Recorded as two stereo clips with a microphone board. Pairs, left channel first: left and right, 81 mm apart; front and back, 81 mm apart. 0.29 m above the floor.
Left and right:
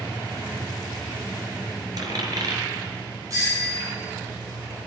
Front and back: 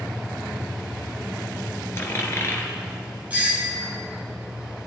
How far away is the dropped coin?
About 2.5 m.